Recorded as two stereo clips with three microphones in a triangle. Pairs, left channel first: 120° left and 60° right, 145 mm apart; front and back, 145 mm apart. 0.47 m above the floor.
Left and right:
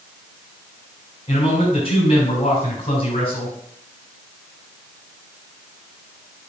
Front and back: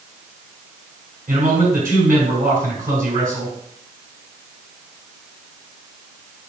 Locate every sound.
1.3 s a man speaking: 165° left, 5 m